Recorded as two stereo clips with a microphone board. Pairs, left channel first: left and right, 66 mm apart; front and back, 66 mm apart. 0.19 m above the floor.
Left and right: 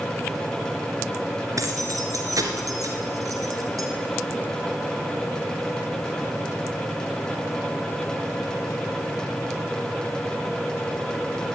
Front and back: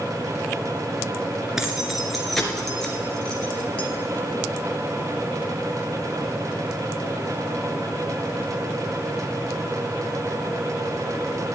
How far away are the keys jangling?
About 2 m.